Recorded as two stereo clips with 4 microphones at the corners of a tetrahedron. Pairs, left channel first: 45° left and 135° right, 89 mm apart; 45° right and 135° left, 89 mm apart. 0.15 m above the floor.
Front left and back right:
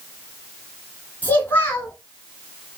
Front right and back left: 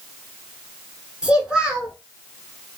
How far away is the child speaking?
About 1.0 m.